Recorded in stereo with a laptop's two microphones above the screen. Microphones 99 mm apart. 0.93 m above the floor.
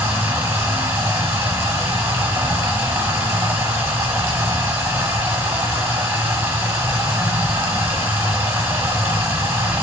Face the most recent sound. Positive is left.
turn(degrees=-25)  # may be behind; listen again after turning